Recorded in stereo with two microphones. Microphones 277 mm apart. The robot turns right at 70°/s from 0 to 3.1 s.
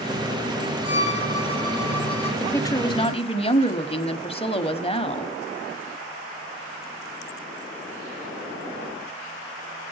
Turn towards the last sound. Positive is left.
turn(degrees=20)  # may be behind; listen again after turning